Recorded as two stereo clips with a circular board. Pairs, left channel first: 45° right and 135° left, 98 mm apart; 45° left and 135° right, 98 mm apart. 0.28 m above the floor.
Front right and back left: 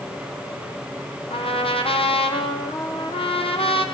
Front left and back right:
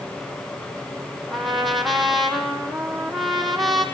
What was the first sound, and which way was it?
A trumpet, 45° right.